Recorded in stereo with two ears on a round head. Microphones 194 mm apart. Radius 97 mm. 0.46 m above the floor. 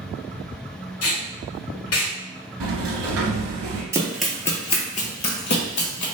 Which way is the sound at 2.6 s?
70° right (ahead or behind).